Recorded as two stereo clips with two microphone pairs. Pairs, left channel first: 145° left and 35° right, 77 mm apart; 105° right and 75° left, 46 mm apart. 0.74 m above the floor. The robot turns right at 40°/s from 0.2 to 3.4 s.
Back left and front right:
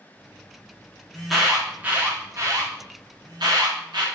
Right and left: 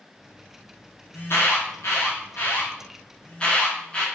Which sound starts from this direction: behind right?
An alarm, at 1.1 s.